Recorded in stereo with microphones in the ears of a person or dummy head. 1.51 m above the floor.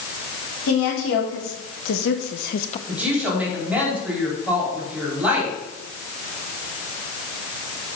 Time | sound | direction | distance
0.7 | a woman speaking | 85° left | 3.5 m
2.9 | a woman speaking | 10° right (ahead or behind) | 4.5 m